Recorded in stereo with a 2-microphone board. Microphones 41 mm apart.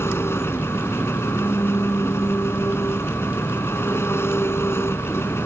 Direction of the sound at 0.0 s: 85° left.